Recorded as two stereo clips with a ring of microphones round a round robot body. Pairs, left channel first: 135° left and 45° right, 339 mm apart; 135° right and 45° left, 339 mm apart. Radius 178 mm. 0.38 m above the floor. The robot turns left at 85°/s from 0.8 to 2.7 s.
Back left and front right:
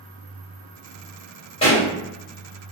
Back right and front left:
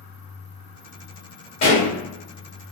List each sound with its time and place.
1.6 s a pop: 155° right, 1.7 m; by 1.9 s 175° right, 1.7 m